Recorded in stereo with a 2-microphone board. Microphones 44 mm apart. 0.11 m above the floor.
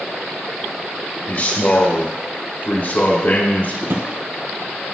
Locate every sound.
1.3 s a man speaking: 50° left (ahead or behind), 3 m
3.8 s a drawer: 60° right (ahead or behind), 1.2 m